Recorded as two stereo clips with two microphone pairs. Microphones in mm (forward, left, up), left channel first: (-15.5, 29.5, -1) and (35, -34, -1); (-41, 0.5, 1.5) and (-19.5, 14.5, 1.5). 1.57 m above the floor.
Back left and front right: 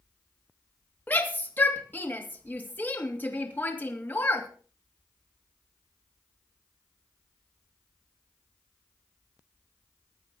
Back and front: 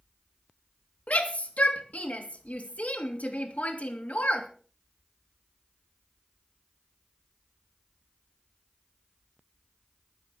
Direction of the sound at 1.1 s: 165° right.